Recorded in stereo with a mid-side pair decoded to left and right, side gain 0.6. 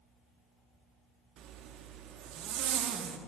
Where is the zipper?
55° right, 1.2 m.